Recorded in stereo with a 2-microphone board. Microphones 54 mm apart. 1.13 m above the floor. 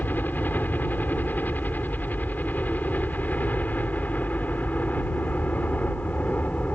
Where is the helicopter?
35° left (ahead or behind); by 6.8 s 30° left (ahead or behind).